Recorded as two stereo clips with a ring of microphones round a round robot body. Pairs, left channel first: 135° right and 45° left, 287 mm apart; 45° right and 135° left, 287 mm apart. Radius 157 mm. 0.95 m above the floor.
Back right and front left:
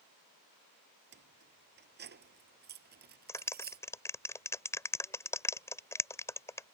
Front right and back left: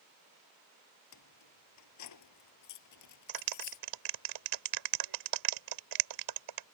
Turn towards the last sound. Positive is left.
turn(degrees=145)